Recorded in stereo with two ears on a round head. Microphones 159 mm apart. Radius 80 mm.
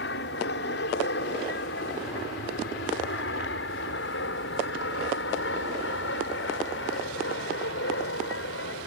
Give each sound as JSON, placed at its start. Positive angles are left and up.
{"t": 0.0, "sound": "an aircraft", "side_deg": 65}